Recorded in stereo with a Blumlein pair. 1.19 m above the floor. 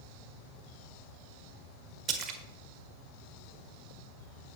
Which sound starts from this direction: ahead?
A splash, at 2.1 s.